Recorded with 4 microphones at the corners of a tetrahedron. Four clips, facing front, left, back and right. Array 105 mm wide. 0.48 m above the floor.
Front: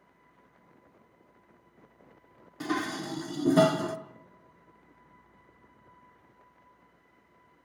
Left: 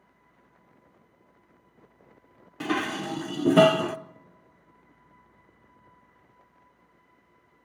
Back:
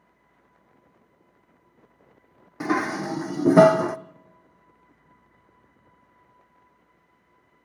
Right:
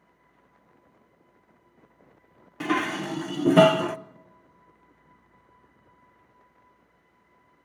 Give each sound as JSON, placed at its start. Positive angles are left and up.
{"t": 2.6, "sound": "dishes clattering", "azimuth_deg": 175, "distance_m": 0.5}